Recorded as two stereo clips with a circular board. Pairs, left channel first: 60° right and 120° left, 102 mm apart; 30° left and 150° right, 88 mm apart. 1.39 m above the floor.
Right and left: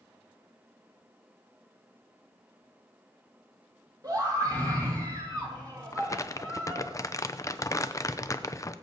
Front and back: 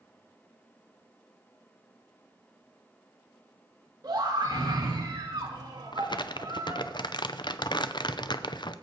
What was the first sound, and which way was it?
A scream, 170° left.